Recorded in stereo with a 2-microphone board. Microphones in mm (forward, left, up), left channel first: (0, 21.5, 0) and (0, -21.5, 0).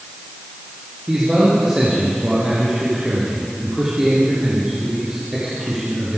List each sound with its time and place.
1.1 s a man speaking: 15° right (ahead or behind), 3.5 m